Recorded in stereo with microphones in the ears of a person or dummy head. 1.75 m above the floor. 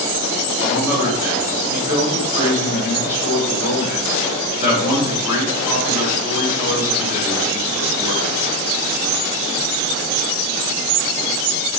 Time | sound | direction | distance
0.6 | a man speaking | 15° right (ahead or behind) | 7 m